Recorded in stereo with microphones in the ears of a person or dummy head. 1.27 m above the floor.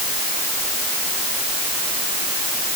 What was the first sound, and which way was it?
Only background noise.